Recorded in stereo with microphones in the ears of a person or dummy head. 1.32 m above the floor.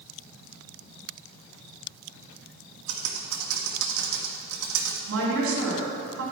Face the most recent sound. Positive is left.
turn(degrees=-85)